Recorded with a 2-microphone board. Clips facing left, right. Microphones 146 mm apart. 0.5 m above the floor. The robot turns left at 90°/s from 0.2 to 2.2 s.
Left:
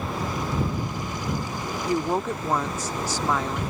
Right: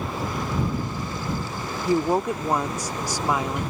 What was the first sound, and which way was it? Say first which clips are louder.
A woman speaking: right 4 dB; 20° right (ahead or behind).